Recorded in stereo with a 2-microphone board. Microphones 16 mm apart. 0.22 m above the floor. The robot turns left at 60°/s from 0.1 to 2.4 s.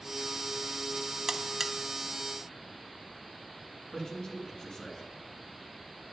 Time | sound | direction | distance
1.3 | a buzzer | 35° right (ahead or behind) | 0.6 m
3.9 | a man speaking | 50° left (ahead or behind) | 2.5 m